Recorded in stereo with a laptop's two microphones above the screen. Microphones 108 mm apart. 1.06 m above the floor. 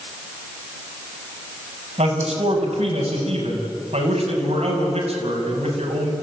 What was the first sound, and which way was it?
A man speaking, 85° right.